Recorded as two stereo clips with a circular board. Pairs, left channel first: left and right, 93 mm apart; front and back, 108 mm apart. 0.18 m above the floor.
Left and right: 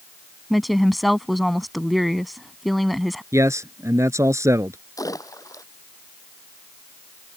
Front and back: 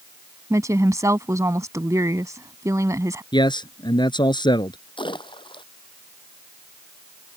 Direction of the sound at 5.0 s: 40° left.